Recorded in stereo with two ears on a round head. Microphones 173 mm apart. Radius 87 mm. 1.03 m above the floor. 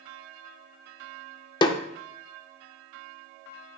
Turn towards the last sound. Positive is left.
turn(degrees=25)  # may be behind; listen again after turning